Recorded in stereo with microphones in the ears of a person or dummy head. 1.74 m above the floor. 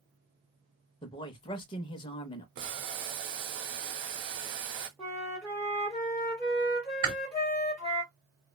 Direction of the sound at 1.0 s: 25° left (ahead or behind).